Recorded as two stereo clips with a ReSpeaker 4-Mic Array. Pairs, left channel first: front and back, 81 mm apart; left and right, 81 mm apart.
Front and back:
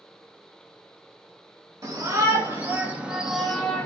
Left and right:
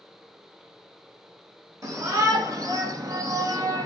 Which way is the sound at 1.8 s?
135° right.